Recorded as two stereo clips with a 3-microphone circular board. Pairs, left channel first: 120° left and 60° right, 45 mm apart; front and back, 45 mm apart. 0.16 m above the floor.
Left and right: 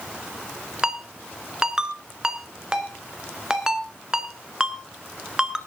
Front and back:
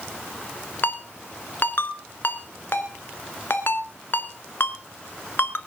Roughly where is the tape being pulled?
No tape being pulled in this recording.